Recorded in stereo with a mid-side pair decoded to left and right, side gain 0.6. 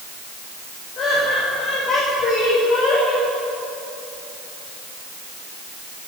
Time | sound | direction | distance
1.0 | laughter | 50° left | 8.5 m